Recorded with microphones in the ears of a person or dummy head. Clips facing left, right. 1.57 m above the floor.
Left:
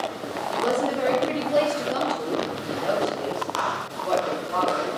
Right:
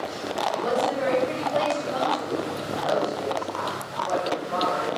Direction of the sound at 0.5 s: 65° left (ahead or behind).